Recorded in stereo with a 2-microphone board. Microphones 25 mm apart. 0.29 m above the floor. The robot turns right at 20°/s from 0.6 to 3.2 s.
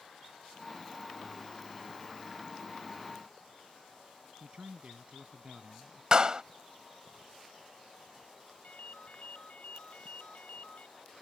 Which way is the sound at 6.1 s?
35° right (ahead or behind).